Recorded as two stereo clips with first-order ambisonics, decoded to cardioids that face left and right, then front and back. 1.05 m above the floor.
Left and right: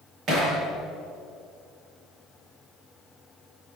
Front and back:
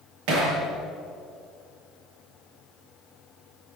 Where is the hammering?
150° right, 9.5 m.